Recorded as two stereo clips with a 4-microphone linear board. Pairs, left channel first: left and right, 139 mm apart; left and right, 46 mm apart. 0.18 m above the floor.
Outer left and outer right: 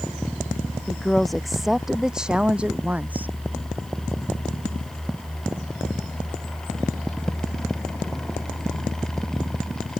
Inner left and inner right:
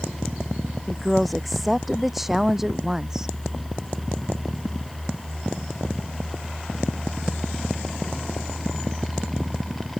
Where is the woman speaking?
5° left (ahead or behind); by 3.3 s 15° right (ahead or behind).